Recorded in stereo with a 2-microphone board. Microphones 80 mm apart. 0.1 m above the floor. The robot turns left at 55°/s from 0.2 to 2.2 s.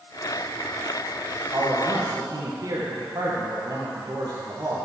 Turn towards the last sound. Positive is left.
turn(degrees=-80)